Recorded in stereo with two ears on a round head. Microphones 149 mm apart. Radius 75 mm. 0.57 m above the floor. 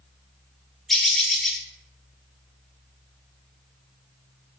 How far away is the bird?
About 0.9 m.